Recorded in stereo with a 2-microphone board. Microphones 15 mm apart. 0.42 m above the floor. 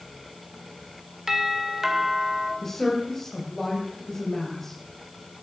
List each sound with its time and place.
1.3 s a doorbell: 30° right (ahead or behind), 2.5 m
2.6 s a woman speaking: 20° left (ahead or behind), 2.5 m